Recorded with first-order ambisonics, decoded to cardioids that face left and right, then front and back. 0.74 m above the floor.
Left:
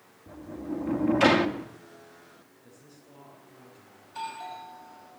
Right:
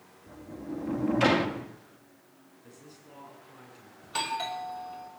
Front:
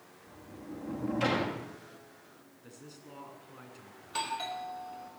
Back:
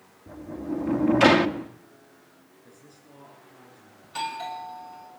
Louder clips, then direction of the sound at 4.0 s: Right 5 dB, back 3 dB; 80° right.